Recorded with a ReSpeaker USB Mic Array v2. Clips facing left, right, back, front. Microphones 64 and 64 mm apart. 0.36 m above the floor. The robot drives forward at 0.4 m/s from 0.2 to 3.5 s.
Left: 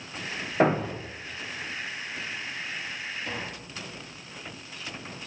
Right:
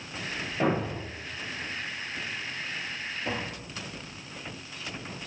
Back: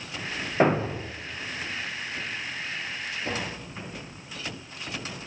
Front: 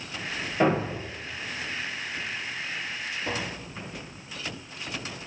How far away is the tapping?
About 6 m.